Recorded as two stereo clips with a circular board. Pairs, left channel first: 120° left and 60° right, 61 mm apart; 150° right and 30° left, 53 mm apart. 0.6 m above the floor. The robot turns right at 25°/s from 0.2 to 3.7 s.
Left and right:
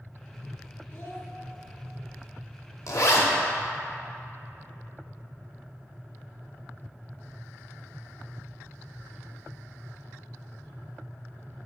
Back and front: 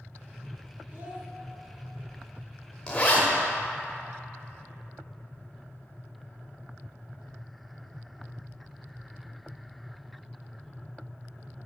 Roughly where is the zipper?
Behind left.